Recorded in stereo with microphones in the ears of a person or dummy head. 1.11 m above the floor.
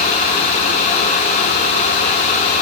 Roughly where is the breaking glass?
No breaking glass in this recording.